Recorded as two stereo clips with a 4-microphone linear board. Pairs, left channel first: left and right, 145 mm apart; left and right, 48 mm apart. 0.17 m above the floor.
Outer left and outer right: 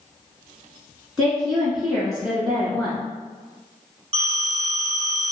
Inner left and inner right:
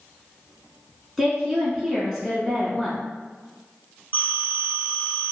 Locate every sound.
1.2 s a woman speaking: centre (ahead or behind), 1.7 m
4.1 s a phone ringing: 40° right (ahead or behind), 1.1 m